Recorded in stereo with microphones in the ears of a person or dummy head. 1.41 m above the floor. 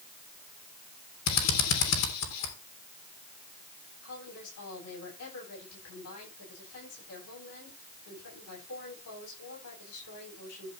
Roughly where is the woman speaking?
Left.